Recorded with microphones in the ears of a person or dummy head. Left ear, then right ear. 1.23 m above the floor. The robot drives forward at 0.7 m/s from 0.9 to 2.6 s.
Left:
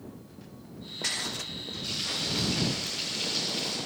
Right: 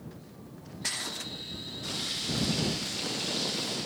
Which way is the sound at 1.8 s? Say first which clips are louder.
Left 2 dB; 10° left (ahead or behind).